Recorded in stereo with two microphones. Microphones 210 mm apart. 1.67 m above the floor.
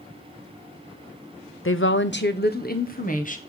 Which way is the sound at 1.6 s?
75° left (ahead or behind).